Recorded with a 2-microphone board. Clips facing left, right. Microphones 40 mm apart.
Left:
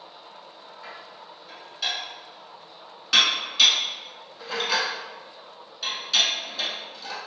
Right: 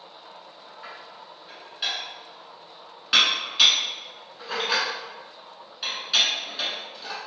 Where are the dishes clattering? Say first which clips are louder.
Even; 15° right (ahead or behind), 0.9 m.